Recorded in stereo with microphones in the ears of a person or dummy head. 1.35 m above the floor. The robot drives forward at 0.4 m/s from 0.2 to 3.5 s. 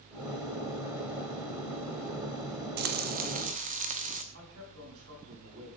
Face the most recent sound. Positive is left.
turn(degrees=-75)  # may be behind; listen again after turning